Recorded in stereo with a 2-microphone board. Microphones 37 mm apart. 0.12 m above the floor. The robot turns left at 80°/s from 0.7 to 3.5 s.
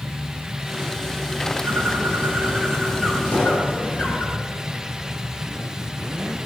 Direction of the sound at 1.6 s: 80° right.